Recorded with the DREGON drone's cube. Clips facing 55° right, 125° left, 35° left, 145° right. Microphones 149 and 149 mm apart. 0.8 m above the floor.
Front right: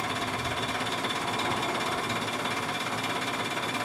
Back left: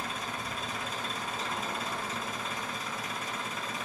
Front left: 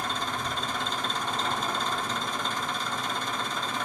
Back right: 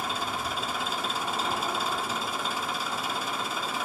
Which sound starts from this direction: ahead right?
An engine running, at 0.0 s.